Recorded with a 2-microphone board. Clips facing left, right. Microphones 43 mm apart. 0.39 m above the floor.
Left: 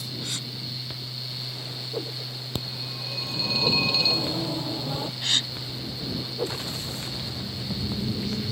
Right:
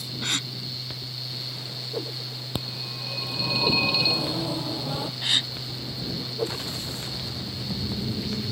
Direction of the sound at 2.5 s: 15° right (ahead or behind).